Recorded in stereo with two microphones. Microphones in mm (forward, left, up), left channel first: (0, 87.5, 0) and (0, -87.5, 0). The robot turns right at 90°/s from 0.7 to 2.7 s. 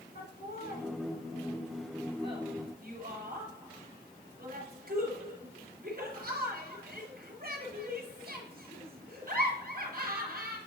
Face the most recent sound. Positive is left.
turn(degrees=-55)  # may be behind; listen again after turning